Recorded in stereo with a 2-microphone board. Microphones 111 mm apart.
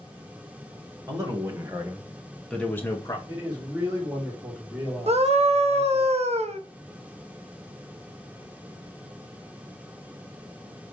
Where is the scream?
70° right (ahead or behind), 0.7 m.